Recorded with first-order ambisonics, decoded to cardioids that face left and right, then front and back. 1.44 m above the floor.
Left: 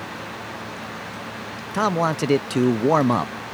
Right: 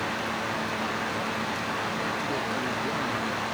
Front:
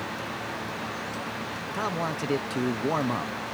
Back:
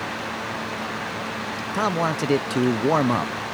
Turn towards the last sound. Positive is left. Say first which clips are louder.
# left 8 dB, back 7 dB
turn(degrees=115)